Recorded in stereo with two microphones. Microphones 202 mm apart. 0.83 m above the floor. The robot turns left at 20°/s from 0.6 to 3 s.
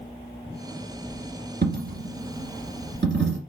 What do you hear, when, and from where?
1.6 s a dropped coin: 50° right (ahead or behind), 1.4 m; by 3.4 s 65° right (ahead or behind), 1.4 m